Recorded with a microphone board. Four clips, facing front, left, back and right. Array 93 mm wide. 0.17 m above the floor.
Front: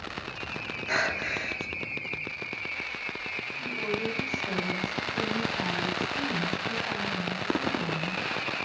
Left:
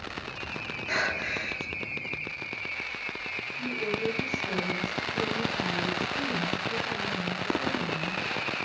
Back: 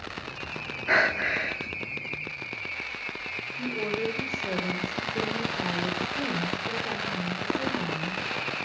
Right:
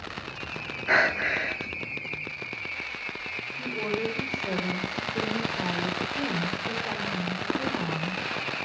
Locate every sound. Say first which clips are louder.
0.9 s breathing: right 7 dB, back 5 dB; 135° right, 1.1 m
3.6 s a woman speaking: right 1 dB, back 2 dB; 140° right, 3.5 m